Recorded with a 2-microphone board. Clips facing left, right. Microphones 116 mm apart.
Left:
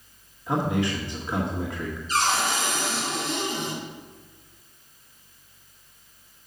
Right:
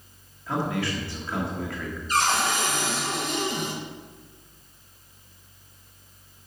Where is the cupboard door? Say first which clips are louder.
Right 1 dB; 55° right (ahead or behind), 3.5 m.